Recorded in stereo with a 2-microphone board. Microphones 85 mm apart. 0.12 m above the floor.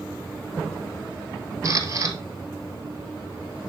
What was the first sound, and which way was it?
A camera shutter, 40° right (ahead or behind).